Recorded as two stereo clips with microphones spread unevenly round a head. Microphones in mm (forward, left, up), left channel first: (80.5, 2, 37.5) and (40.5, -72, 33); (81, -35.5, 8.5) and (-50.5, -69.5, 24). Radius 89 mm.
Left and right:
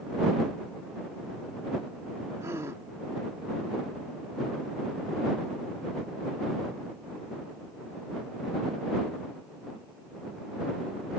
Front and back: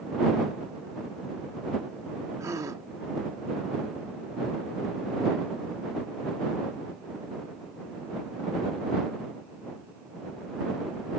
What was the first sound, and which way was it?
A gasp, 160° right.